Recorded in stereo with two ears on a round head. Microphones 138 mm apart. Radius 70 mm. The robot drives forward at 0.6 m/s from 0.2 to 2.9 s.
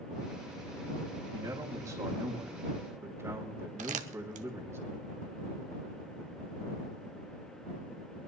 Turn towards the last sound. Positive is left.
turn(degrees=-50)  # may be behind; listen again after turning